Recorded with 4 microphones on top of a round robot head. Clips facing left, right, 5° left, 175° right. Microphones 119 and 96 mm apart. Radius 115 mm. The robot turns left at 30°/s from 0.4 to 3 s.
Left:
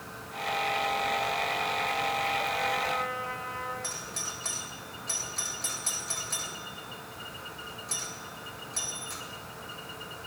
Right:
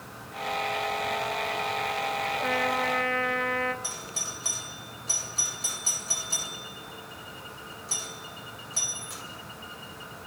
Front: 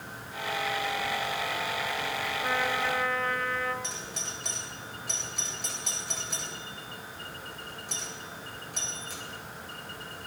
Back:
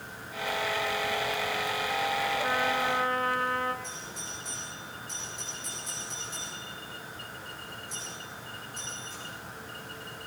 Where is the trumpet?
90° right, 2.5 m; by 3.7 s 105° right, 2.5 m.